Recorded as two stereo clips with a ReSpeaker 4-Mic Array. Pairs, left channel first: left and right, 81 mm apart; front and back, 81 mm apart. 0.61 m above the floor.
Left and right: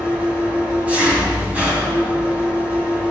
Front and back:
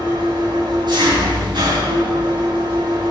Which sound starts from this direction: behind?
An engine running, at 0.0 s.